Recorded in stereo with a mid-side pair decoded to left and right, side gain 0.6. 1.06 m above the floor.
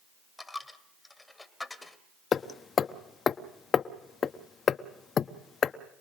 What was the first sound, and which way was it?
A dropped coin, 15° left.